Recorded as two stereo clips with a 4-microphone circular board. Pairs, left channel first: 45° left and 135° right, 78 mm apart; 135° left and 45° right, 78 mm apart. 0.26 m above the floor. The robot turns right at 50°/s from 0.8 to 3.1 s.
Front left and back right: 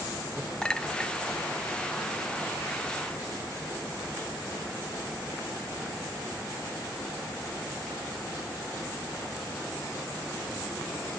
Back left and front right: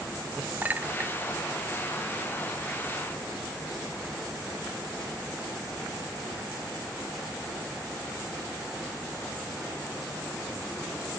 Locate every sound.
0.6 s a clink: 20° right, 0.5 m; by 1.1 s 5° right, 0.5 m